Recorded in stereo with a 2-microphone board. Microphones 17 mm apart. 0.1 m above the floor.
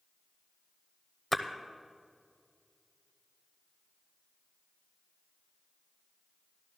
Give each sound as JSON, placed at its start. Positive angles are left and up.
{"t": 1.3, "sound": "a splash", "side_deg": 15, "distance_m": 0.8}